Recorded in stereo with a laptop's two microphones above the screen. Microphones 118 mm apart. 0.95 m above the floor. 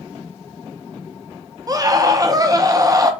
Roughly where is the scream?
Right.